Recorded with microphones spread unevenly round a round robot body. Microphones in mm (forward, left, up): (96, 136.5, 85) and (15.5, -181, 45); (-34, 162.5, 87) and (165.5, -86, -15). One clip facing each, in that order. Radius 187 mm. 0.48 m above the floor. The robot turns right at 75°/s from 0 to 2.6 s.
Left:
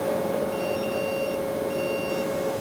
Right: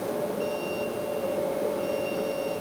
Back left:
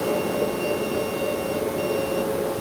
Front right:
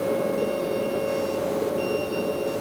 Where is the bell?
I don't hear a bell.